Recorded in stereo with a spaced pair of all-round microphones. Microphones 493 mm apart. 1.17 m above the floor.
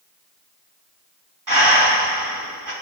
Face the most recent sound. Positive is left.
turn(degrees=-40)  # may be behind; listen again after turning